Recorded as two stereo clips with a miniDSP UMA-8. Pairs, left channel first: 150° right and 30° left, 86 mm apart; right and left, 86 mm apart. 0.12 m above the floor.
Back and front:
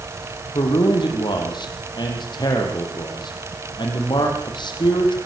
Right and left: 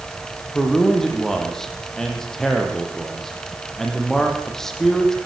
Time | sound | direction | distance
0.5 | a man speaking | 175° right | 6 m